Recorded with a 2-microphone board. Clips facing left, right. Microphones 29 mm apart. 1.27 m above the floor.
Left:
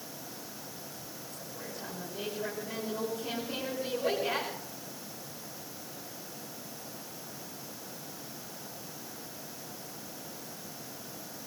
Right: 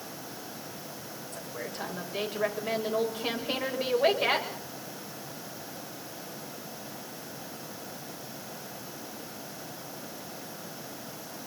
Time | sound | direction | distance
1.3 | a woman speaking | 60° right (ahead or behind) | 6.5 m